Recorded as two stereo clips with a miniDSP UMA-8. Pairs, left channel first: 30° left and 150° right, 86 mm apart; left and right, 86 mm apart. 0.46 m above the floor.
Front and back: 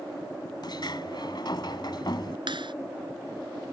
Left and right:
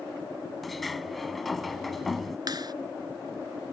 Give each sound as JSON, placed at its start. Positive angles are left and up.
{"t": 0.6, "sound": "a sliding door", "azimuth_deg": 0}
{"t": 2.5, "sound": "a clap", "azimuth_deg": -130}